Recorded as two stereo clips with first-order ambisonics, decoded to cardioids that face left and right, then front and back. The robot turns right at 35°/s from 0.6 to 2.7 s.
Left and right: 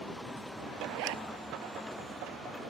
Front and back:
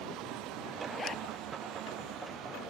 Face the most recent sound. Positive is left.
turn(degrees=-15)